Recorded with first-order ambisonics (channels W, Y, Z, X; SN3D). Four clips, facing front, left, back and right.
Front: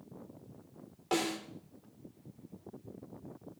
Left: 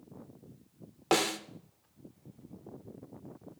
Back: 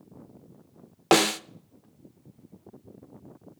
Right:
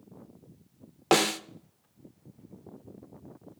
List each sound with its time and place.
1.1 s a snare drum: 160° right, 0.5 m